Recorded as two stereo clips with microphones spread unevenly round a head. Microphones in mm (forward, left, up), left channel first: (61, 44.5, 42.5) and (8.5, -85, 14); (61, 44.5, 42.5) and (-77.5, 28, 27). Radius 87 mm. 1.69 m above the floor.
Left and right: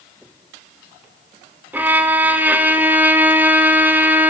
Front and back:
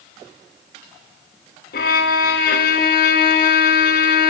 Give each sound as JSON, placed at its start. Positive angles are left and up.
{"t": 1.7, "sound": "a violin", "azimuth_deg": -30, "distance_m": 0.6}